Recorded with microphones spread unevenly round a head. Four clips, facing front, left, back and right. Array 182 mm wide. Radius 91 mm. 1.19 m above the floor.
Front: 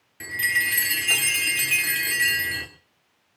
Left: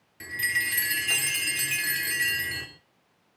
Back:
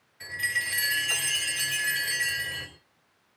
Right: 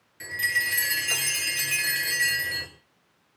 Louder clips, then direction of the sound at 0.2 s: Right 2 dB, front 6 dB; 20° left.